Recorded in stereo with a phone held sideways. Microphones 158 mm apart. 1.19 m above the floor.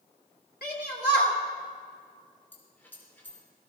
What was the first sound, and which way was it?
A shout, 80° left.